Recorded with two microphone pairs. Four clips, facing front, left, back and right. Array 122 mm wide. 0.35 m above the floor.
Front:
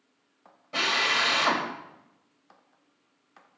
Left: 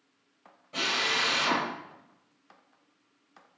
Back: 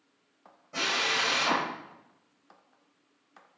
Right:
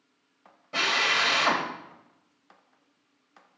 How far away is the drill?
About 1.7 m.